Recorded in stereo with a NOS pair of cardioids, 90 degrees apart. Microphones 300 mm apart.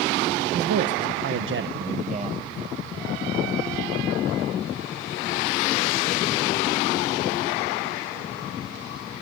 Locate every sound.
0.5 s a man speaking: 60° right, 1.7 m; by 2.5 s 15° right, 1.1 m